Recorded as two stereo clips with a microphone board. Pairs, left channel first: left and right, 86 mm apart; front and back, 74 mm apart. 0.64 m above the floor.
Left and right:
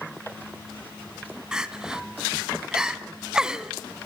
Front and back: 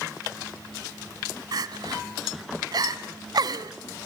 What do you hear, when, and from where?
1.5 s crying: 170° right, 0.9 m